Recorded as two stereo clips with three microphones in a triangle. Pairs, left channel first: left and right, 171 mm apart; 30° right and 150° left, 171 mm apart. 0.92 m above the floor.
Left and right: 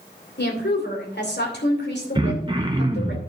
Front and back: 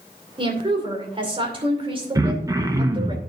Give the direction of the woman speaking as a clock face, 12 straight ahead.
9 o'clock.